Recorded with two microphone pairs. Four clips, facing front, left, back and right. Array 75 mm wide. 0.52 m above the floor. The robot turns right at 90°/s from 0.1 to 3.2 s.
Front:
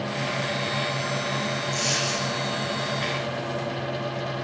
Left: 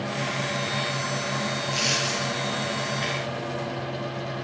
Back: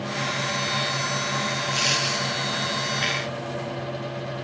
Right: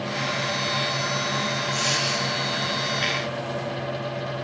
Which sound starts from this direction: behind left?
A dropped coin, at 1.7 s.